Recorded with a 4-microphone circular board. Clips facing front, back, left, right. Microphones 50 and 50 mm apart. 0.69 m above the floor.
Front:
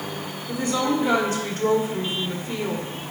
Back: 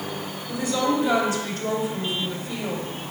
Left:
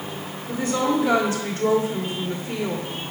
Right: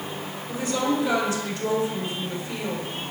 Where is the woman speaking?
40° left, 1.6 m.